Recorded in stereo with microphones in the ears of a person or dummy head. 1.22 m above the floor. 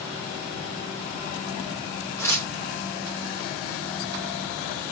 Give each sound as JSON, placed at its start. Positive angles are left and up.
{"t": 2.2, "sound": "tearing paper", "side_deg": 20, "distance_m": 1.6}